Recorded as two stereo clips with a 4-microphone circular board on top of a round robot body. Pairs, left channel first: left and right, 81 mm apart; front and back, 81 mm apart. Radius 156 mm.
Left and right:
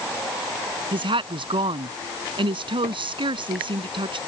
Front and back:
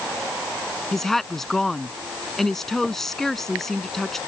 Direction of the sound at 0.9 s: 85° right.